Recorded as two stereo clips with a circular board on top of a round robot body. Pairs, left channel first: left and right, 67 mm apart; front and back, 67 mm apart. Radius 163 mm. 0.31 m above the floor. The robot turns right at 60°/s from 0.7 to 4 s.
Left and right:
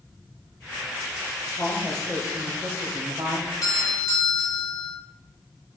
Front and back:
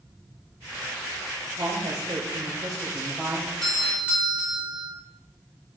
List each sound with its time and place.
1.6 s a woman speaking: 145° left, 1.9 m; by 3.5 s 100° right, 1.9 m
3.6 s a doorbell: 85° left, 3.5 m; by 5.0 s 110° left, 3.5 m